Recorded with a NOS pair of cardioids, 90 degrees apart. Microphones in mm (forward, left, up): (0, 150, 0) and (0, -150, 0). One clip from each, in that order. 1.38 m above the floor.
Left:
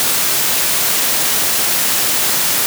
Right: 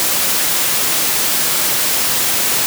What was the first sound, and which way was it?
Only background noise.